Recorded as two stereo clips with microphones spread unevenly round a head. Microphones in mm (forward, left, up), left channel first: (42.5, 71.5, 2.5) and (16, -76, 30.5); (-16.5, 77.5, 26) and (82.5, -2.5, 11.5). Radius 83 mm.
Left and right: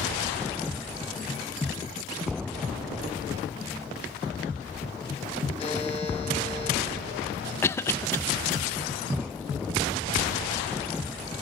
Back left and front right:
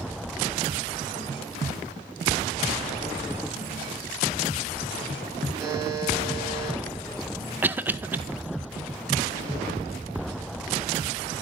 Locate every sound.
5.6 s a buzzer: 25° left, 3.5 m
7.6 s a cough: 25° left, 0.5 m